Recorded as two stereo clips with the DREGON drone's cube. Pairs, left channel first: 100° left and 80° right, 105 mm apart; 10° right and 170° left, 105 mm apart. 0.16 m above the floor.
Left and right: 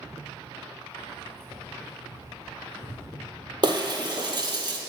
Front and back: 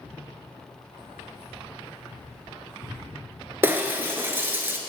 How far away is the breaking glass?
About 0.8 m.